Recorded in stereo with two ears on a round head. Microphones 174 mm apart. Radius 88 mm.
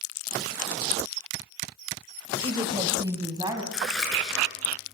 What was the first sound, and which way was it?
A woman speaking, 25° right (ahead or behind).